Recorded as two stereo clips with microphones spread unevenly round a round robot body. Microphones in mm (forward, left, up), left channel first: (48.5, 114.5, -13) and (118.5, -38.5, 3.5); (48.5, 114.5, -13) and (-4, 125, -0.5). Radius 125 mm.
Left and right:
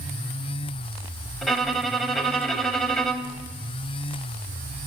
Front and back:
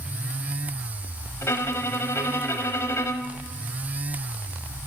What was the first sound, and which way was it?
A violin, 20° left.